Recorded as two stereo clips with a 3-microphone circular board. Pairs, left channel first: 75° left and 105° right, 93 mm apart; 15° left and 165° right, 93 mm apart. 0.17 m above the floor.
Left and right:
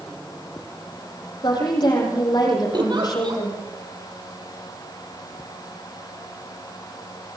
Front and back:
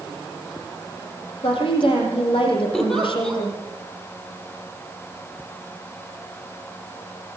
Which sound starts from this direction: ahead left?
A woman speaking, at 1.4 s.